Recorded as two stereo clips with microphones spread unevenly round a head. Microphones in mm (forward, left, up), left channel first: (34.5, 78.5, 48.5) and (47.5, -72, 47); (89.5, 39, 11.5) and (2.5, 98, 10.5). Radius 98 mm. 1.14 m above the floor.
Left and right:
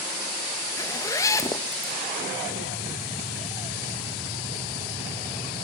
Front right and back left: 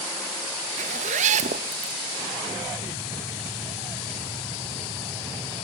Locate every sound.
0.8 s a zipper: 170° left, 0.7 m